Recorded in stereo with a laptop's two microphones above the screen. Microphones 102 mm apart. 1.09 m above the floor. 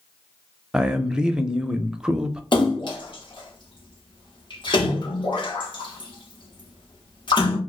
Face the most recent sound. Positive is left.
turn(degrees=55)  # may be behind; listen again after turning